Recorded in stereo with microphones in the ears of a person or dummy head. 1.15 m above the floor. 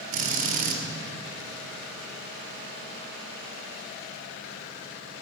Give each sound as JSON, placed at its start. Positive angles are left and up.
{"t": 0.1, "sound": "a drill", "side_deg": -45, "distance_m": 1.4}